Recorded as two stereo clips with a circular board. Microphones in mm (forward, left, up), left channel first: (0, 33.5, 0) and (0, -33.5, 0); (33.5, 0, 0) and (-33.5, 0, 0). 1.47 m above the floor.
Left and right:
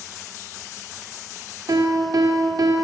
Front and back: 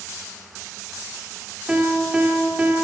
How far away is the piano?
About 2.5 m.